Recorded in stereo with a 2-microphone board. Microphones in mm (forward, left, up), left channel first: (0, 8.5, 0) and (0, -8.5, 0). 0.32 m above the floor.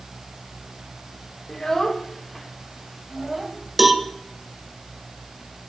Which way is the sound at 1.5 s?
30° left (ahead or behind).